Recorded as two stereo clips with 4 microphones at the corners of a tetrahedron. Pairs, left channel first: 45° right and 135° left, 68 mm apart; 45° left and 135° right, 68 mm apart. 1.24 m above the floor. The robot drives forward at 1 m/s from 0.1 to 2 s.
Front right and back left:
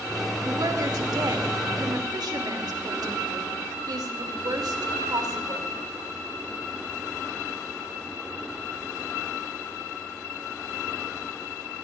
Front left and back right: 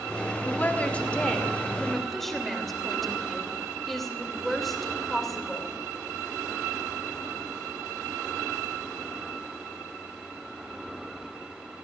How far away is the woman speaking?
About 2.5 m.